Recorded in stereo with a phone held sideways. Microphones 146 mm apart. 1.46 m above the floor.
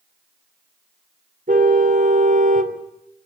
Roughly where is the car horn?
Right.